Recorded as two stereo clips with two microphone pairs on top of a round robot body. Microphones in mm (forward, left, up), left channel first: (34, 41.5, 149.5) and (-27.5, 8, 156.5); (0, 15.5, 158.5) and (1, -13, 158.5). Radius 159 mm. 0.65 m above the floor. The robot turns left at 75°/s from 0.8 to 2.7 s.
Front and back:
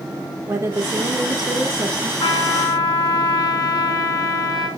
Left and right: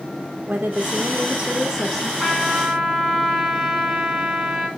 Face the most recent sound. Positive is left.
turn(degrees=-5)